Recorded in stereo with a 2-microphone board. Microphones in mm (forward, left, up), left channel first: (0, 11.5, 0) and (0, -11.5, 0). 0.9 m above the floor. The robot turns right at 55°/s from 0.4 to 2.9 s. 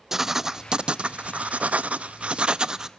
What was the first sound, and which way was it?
Writing, 160° right.